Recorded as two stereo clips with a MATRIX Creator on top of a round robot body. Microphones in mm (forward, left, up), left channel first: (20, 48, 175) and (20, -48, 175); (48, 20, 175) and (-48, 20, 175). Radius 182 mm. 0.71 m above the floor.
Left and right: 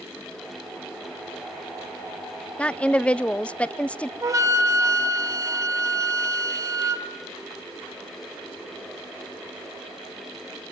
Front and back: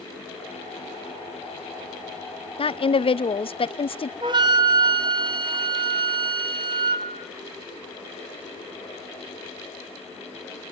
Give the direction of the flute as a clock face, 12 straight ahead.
5 o'clock.